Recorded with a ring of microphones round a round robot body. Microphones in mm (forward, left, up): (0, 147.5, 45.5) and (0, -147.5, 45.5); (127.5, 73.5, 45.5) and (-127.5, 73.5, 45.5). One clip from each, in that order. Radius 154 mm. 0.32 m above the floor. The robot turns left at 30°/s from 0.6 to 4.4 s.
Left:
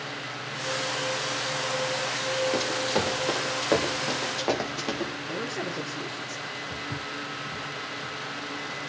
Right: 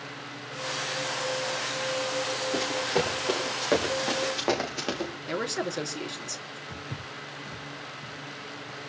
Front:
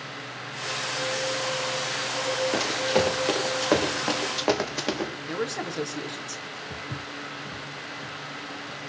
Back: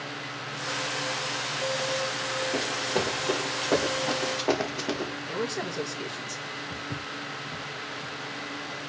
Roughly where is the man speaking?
Ahead right.